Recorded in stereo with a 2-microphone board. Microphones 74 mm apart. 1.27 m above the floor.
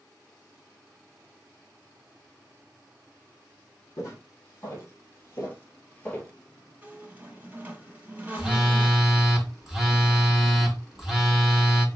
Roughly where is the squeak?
Right.